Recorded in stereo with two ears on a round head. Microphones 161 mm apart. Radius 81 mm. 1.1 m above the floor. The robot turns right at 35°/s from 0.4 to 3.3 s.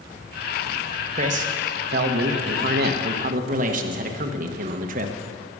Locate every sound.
1.1 s a man speaking: 130° right, 1.2 m; by 5.1 s 55° right, 1.2 m